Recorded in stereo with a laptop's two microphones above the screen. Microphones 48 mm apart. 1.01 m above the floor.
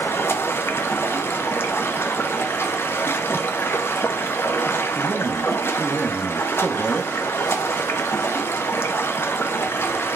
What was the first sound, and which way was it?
Running water, 55° left (ahead or behind).